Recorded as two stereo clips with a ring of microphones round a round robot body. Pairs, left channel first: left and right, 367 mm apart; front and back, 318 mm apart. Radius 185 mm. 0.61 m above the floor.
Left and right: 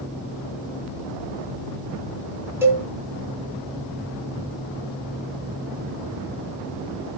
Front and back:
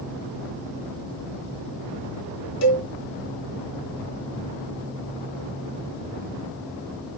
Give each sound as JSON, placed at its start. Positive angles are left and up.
{"t": 2.6, "sound": "a cowbell", "azimuth_deg": -5, "distance_m": 3.0}